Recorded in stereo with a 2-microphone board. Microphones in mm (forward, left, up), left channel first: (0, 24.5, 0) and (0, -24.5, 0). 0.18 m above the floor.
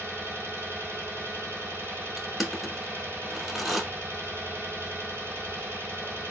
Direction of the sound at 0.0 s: 60° right (ahead or behind).